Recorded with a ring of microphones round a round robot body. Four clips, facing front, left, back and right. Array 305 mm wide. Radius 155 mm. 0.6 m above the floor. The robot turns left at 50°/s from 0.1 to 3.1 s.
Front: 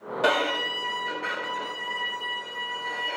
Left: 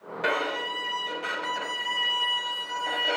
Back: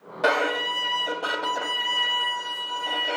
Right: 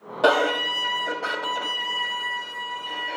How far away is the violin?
About 1.6 m.